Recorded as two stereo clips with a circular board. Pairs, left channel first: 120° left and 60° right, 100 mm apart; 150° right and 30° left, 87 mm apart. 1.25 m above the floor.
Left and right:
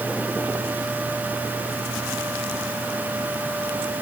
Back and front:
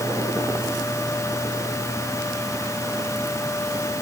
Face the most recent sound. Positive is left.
No sound to turn to.